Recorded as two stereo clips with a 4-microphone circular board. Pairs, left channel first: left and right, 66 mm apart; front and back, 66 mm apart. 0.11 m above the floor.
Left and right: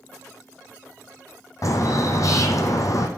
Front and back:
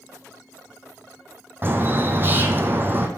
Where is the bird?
125° left, 1.0 m.